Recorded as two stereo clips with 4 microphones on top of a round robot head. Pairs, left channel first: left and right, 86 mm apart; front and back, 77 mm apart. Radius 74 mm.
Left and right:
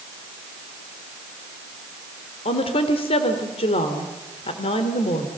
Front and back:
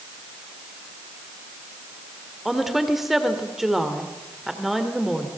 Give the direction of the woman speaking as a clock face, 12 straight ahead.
9 o'clock.